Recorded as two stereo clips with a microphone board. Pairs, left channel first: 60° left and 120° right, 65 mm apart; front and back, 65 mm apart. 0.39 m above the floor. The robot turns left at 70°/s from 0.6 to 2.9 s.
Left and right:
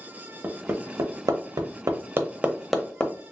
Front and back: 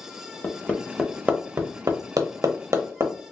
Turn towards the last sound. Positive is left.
turn(degrees=135)